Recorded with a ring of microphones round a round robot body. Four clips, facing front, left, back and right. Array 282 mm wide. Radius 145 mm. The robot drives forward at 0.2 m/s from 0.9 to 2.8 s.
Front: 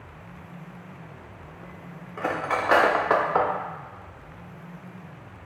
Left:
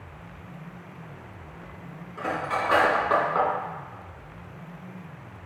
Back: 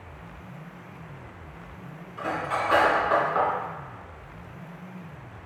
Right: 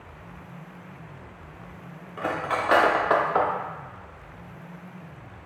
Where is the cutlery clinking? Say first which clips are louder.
Right 1 dB, front 2 dB; 30° right, 0.6 m; by 3.5 s 40° right, 0.5 m.